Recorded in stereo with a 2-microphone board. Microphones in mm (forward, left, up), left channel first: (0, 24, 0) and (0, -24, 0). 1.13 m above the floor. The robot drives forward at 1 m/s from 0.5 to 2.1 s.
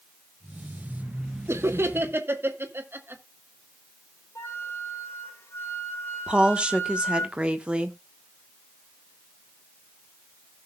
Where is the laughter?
80° right, 1.1 m; by 3.2 s 55° right (ahead or behind), 1.3 m.